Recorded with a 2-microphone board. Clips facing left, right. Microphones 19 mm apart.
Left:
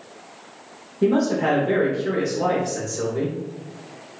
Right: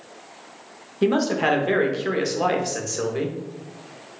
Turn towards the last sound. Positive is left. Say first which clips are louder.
# left 1 dB
turn(degrees=-50)  # may be behind; listen again after turning